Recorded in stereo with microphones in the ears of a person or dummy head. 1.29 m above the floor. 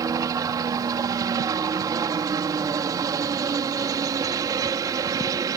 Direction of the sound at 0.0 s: 20° right (ahead or behind).